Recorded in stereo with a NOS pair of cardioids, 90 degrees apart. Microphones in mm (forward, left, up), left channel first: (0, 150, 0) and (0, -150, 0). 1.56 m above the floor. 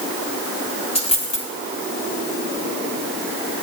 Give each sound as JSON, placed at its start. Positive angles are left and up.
{"t": 0.9, "sound": "a dropped coin", "azimuth_deg": 20, "distance_m": 4.5}